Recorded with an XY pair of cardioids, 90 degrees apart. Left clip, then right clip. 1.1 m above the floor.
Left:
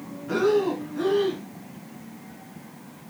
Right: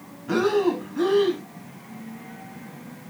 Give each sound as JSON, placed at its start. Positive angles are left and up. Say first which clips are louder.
{"t": 0.3, "sound": "breathing", "louder": "right 1 dB", "azimuth_deg": -35, "distance_m": 4.0}